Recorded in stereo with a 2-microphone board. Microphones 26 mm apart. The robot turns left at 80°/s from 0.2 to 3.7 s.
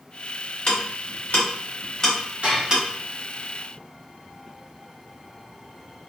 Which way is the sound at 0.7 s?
50° left (ahead or behind).